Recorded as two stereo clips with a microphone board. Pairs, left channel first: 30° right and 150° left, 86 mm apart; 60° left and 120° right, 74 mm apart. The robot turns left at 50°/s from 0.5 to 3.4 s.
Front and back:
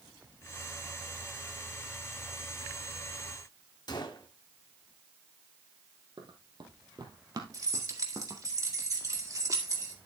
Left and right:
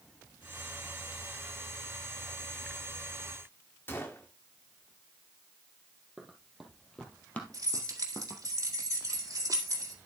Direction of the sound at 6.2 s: 155° left.